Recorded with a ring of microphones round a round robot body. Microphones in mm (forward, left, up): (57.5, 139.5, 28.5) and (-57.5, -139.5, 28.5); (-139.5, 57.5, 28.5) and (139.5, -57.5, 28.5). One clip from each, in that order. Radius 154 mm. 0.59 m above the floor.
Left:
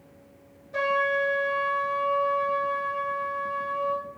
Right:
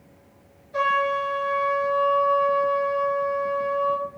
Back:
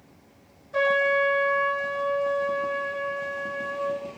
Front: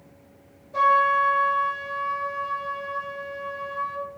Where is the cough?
I don't hear a cough.